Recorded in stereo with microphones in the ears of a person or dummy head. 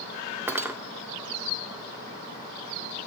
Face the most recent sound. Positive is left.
turn(degrees=-10)  # may be behind; listen again after turning